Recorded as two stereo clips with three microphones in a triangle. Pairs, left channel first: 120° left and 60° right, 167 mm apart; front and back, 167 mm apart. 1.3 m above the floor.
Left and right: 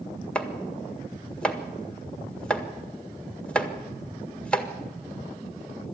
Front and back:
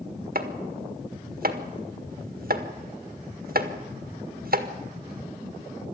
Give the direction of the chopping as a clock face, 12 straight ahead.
5 o'clock.